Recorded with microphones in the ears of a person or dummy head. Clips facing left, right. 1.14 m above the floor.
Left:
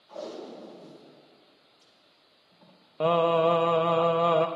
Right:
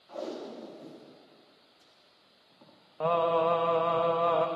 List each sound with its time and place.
0.1 s tape being pulled: 45° right (ahead or behind), 1.8 m
3.0 s singing: 35° left (ahead or behind), 0.6 m